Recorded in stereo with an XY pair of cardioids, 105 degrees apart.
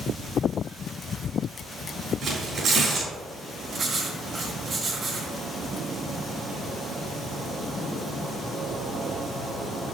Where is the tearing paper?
60° right, 3.5 m.